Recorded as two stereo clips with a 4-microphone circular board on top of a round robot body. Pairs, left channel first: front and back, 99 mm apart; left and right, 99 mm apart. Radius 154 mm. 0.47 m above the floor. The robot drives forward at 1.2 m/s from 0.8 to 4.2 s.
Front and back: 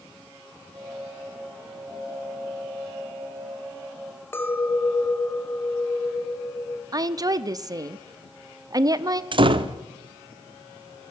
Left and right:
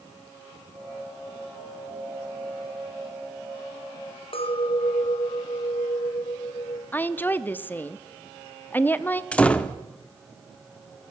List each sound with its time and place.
4.3 s a clink: 65° left, 2.5 m
6.9 s a woman speaking: 150° left, 1.0 m
9.3 s a door slam: 165° left, 1.1 m